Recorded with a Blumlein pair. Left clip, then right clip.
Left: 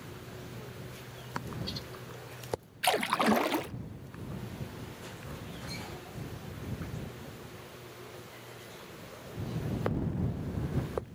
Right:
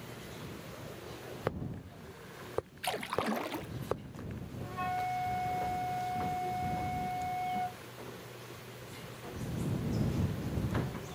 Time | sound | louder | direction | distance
2.8 | a splash | left 8 dB | 25° left | ?
4.6 | a flute | right 11 dB | 45° right | ?